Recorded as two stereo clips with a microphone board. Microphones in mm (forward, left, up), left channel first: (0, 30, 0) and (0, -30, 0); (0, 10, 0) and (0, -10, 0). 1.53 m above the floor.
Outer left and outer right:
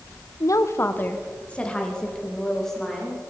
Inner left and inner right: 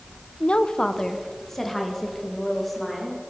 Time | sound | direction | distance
0.4 | a woman speaking | 65° left (ahead or behind) | 0.7 m